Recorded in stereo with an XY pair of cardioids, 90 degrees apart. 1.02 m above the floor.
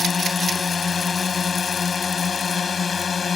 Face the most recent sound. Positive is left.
turn(degrees=50)